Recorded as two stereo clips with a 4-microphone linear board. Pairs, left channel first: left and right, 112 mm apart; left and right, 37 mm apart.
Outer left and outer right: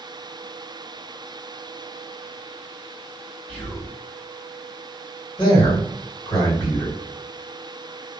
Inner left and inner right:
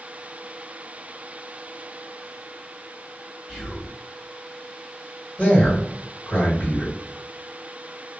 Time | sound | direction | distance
3.5 | whispering | 15° left (ahead or behind) | 1.9 m
5.4 | a man speaking | 45° left (ahead or behind) | 1.8 m